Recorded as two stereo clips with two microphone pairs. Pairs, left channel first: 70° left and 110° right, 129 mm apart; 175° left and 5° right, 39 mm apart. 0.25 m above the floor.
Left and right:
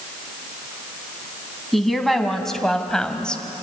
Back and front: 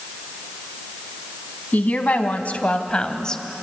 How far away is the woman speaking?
About 2.5 m.